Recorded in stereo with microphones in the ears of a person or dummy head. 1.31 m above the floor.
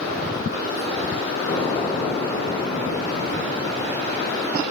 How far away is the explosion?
About 1.5 m.